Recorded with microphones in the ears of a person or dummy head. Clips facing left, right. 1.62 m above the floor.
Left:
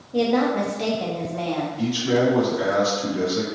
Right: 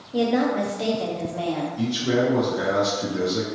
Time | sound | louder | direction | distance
0.1 | a woman speaking | left 1 dB | 5° right (ahead or behind) | 0.7 m
1.8 | a man speaking | left 2 dB | 50° right (ahead or behind) | 0.7 m